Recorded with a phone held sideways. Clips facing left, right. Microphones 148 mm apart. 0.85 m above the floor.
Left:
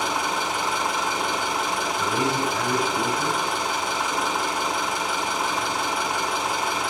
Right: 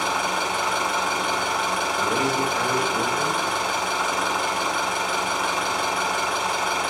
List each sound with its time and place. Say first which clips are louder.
0.0 s an engine running: right 1 dB; 60° right (ahead or behind), 5.5 m
2.0 s a man speaking: right 1 dB; 75° right (ahead or behind), 3 m